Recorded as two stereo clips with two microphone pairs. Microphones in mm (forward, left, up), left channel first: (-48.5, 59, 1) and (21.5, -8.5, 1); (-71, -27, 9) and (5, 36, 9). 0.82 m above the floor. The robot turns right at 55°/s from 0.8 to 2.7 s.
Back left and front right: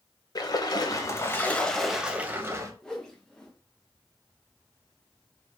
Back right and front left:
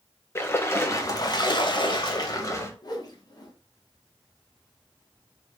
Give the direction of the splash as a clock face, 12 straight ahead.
6 o'clock.